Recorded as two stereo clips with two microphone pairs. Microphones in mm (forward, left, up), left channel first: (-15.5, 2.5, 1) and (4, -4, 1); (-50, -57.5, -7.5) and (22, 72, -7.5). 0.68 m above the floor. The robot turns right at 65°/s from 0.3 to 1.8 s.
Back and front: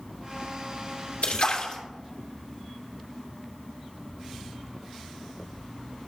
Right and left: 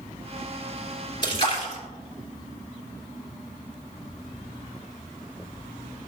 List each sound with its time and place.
1.2 s a splash: straight behind, 2 m; by 1.8 s 145° right, 2 m